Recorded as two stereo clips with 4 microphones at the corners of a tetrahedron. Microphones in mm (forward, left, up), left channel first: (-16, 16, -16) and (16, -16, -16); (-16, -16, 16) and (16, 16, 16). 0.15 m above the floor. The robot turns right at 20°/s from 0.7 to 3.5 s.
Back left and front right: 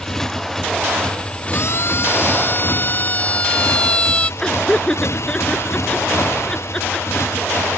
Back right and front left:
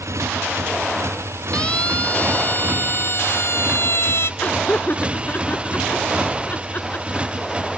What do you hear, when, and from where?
0.0 s a motorcycle: 55° left; by 7.8 s 110° left
1.5 s a siren: 155° left; by 4.3 s 155° right
4.4 s laughter: 160° right